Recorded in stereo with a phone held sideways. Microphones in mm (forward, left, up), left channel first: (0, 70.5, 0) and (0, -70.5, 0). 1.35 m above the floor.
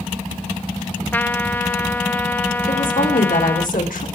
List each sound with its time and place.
1.1 s a trumpet: 15° left (ahead or behind), 0.8 m
2.7 s a woman speaking: 85° left, 4.5 m